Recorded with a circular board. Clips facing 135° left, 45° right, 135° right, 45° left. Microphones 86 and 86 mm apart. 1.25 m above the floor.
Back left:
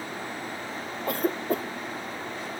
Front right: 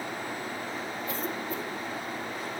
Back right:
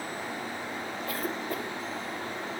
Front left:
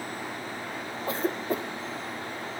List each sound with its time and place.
1.1 s a cough: 110° left, 0.6 m